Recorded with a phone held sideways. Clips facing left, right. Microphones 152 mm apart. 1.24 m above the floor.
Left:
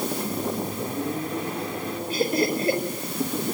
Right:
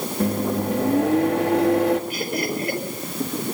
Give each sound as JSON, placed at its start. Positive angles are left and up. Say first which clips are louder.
{"t": 0.2, "sound": "a microwave", "louder": "right 6 dB", "side_deg": -85, "distance_m": 1.9}
{"t": 2.1, "sound": "laughter", "louder": "left 3 dB", "side_deg": 30, "distance_m": 4.5}